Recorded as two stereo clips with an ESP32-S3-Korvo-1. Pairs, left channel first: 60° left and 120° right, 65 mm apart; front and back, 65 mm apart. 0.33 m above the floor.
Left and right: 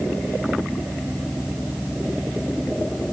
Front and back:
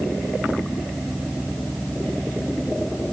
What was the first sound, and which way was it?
Only background noise.